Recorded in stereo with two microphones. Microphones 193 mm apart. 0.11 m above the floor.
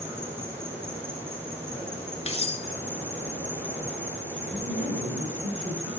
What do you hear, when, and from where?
0.0 s an insect: 10° right (ahead or behind), 4 m
2.3 s cutlery clinking: 30° left (ahead or behind), 0.8 m
4.5 s a woman speaking: 80° right, 7 m